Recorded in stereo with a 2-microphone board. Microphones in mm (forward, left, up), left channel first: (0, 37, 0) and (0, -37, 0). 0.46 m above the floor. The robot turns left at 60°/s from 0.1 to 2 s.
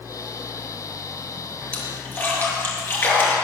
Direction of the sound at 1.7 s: 15° left (ahead or behind).